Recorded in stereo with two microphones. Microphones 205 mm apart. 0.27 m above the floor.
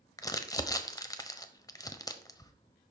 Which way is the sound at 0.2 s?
15° left (ahead or behind).